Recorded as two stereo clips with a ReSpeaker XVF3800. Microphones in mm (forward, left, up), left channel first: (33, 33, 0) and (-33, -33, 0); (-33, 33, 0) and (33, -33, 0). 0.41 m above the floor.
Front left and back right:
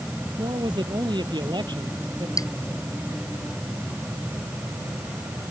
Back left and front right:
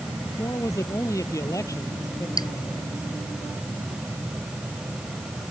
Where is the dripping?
95° left.